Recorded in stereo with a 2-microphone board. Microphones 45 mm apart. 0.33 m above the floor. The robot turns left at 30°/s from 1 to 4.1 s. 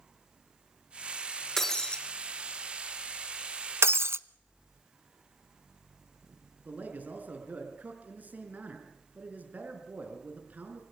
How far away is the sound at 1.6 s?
About 3 m.